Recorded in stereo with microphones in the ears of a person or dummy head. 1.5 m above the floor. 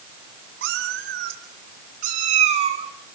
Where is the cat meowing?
70° right (ahead or behind), 1.8 m; by 2.9 s 35° right (ahead or behind), 1.9 m.